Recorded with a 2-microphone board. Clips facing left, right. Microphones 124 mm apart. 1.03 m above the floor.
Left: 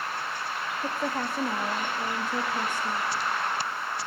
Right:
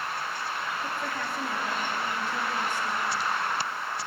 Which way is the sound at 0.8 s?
40° left (ahead or behind).